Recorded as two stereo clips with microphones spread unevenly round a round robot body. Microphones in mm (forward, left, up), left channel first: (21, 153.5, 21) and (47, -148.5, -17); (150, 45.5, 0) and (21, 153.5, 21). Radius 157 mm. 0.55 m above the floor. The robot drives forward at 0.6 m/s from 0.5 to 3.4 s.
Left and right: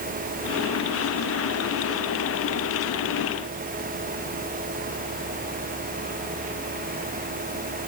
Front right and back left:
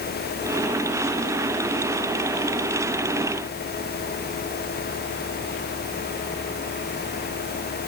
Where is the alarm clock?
No alarm clock in this recording.